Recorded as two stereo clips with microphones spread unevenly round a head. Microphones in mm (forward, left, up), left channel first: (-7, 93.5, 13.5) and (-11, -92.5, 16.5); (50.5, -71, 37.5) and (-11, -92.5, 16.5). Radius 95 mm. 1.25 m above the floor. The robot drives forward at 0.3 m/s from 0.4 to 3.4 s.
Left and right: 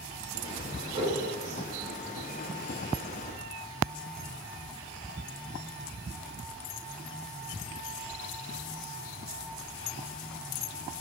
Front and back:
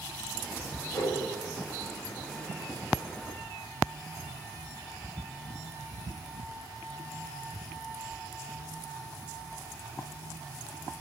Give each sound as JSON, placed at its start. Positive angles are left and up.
{"t": 0.9, "sound": "a whoosh", "azimuth_deg": -30, "distance_m": 1.2}